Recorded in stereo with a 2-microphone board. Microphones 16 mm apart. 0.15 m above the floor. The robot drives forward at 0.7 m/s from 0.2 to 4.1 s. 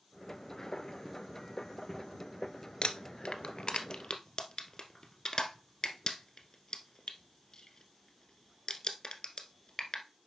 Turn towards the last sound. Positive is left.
turn(degrees=35)  # may be behind; listen again after turning